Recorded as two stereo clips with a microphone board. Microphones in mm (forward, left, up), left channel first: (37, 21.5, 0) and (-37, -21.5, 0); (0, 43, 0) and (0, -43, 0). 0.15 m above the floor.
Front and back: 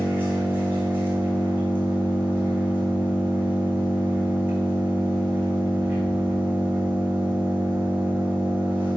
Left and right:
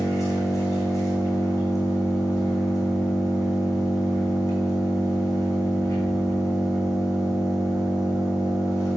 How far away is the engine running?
About 3 m.